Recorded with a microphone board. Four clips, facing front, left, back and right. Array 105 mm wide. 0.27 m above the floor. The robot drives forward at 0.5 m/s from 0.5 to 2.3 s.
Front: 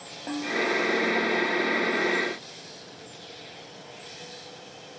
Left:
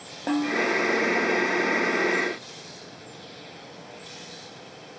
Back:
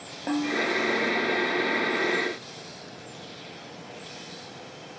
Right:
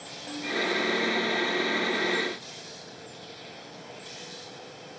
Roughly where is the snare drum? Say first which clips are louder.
Left 7 dB, back 2 dB; left.